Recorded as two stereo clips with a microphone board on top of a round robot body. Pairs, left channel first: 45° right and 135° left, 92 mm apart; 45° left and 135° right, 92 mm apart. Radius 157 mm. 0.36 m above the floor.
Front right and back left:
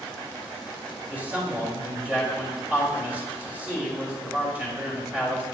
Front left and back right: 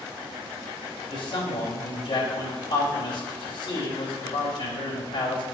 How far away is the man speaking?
About 3 m.